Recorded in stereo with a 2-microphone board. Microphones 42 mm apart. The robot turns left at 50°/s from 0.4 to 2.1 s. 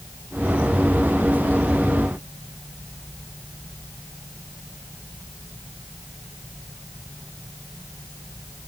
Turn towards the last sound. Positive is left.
No sound to turn to.